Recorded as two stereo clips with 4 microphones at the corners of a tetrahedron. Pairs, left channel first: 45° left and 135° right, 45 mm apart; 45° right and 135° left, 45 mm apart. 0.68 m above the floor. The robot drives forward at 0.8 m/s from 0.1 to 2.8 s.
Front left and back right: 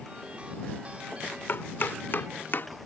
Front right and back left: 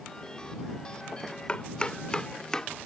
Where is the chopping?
15° left; by 2.7 s 25° left.